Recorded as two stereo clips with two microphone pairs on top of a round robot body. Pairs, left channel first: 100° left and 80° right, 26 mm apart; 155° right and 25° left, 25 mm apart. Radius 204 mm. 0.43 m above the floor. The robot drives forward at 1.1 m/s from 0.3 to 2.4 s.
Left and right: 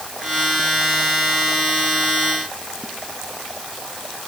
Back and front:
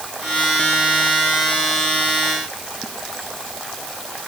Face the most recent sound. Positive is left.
No sound to turn to.